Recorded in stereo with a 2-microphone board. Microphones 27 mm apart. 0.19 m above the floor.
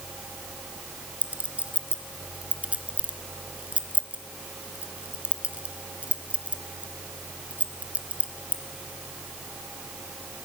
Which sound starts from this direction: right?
A clink, at 1.2 s.